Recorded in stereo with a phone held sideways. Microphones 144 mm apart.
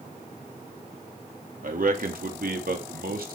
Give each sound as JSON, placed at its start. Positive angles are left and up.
{"t": 1.6, "sound": "a man speaking", "side_deg": -70, "distance_m": 3.5}